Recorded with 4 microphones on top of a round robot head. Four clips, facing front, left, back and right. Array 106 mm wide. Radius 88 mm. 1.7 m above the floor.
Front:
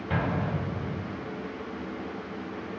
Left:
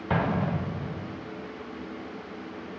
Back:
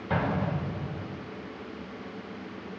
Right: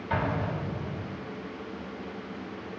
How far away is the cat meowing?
I don't hear a cat meowing.